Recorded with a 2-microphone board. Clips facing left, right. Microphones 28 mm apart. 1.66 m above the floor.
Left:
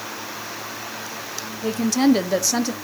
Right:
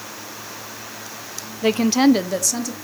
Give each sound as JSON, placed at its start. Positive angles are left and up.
{"t": 1.6, "sound": "a woman speaking", "side_deg": -55, "distance_m": 0.7}